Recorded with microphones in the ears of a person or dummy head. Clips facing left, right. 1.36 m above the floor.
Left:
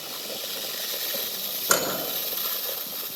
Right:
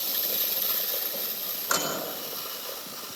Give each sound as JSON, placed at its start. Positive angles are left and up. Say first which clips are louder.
{"t": 1.7, "sound": "a microwave", "louder": "left 5 dB", "side_deg": 40, "distance_m": 5.5}